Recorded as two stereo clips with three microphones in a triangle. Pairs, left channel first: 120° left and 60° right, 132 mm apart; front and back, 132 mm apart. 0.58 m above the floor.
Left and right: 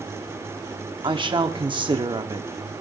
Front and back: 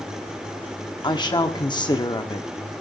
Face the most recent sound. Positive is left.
turn(degrees=-35)